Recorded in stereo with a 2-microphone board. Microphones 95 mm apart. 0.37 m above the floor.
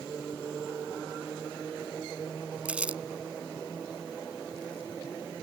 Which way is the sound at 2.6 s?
15° right (ahead or behind).